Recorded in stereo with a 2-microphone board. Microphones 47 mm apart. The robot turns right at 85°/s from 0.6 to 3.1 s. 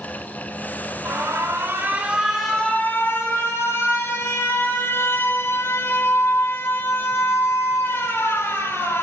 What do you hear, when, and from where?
1.1 s an alarm: 115° right, 2.5 m; by 9.0 s 60° left, 2.5 m